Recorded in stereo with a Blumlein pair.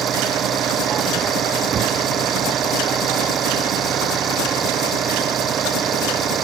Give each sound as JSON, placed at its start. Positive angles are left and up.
{"t": 0.0, "sound": "an engine running", "azimuth_deg": -25}